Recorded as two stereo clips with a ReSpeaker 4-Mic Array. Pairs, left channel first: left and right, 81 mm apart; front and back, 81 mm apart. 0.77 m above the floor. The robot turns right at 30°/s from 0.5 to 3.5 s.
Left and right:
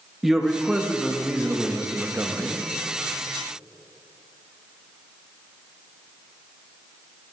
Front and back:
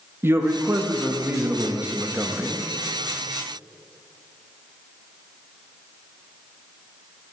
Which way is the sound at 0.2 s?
175° right.